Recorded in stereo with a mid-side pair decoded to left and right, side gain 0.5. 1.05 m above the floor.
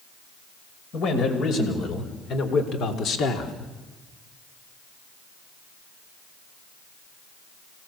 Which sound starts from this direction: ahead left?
A man speaking, at 0.9 s.